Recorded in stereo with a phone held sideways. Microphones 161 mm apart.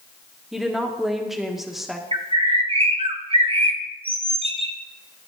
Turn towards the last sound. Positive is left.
turn(degrees=-35)  # may be behind; listen again after turning